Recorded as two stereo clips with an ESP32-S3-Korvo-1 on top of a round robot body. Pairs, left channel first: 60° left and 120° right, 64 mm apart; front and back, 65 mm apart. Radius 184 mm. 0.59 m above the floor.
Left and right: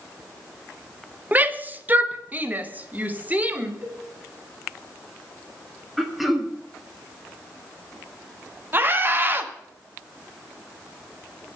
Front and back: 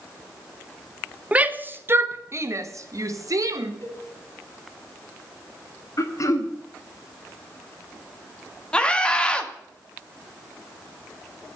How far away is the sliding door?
I don't hear a sliding door.